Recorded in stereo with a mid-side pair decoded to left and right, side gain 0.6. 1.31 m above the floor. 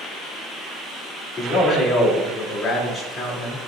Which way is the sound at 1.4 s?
35° left.